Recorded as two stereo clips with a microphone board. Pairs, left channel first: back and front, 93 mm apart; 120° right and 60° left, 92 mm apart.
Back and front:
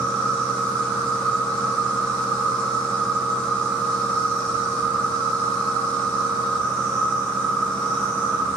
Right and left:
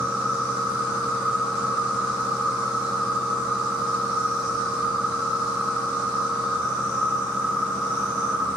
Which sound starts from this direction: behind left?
An insect, at 0.0 s.